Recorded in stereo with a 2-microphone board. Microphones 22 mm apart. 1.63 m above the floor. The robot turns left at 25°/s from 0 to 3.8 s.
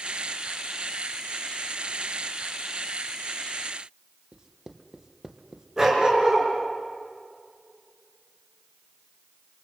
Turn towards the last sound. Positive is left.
turn(degrees=-20)  # may be behind; listen again after turning